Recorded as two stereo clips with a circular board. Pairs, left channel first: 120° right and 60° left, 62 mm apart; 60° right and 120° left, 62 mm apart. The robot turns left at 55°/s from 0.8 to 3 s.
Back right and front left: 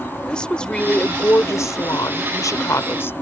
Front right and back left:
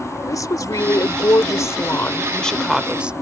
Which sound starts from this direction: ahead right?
A woman speaking, at 0.3 s.